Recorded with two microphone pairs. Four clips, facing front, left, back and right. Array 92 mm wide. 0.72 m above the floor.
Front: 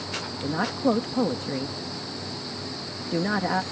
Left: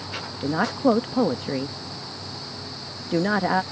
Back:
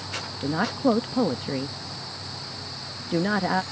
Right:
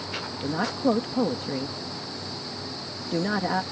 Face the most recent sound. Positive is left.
turn(degrees=85)